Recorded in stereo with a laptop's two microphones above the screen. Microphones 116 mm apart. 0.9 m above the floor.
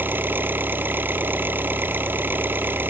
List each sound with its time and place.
0.0 s an engine running: 20° right (ahead or behind)